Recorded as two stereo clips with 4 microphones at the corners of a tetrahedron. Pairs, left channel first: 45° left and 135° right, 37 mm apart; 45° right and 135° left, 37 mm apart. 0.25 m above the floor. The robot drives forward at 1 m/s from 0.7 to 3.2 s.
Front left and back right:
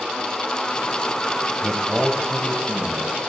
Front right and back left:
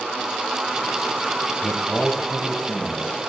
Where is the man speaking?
55° right, 1.0 m; by 3.2 s 160° right, 1.6 m.